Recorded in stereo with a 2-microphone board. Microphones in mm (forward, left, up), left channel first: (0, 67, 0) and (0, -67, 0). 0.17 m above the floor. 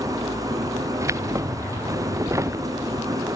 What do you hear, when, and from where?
0.0 s an engine running: 25° right (ahead or behind)
1.0 s keys jangling: 25° right (ahead or behind)